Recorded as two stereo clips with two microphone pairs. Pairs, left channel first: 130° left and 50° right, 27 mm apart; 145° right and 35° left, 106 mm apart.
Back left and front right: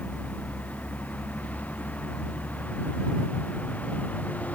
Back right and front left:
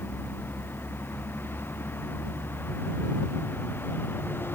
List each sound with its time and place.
0.0 s a vehicle: 145° left